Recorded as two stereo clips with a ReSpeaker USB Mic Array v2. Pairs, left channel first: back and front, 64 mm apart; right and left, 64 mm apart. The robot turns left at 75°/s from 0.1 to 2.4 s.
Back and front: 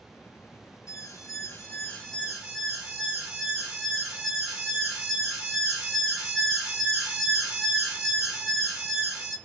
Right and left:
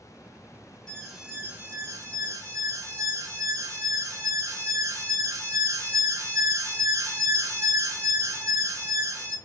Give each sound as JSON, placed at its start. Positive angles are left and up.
{"t": 0.9, "sound": "an alarm", "azimuth_deg": -165, "distance_m": 1.1}